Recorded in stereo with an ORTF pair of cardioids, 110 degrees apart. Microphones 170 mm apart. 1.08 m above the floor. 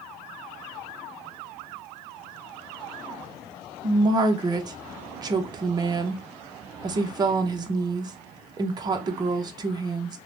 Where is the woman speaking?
25° right, 0.7 m.